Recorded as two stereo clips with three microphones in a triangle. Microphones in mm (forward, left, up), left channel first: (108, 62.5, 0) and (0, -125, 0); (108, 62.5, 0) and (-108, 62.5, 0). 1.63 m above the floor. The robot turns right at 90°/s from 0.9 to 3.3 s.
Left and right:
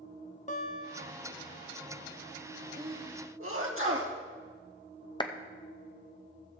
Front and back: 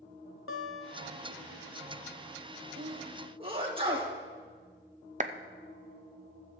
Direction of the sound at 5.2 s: 125° left.